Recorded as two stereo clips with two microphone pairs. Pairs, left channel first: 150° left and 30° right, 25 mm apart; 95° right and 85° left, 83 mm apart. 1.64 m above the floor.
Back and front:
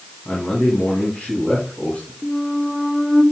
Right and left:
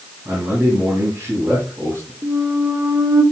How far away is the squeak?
About 1.4 m.